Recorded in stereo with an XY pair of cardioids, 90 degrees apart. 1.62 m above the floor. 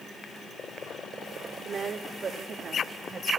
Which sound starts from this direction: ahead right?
A woman speaking, at 1.6 s.